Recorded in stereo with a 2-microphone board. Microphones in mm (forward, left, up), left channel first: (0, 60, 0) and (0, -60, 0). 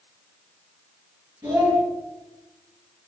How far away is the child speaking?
About 1.7 m.